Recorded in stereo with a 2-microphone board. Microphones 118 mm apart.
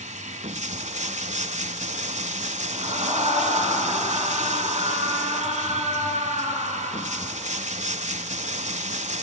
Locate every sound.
0.0 s running water: 75° right (ahead or behind), 0.8 m
2.7 s a scream: 60° right (ahead or behind), 4.5 m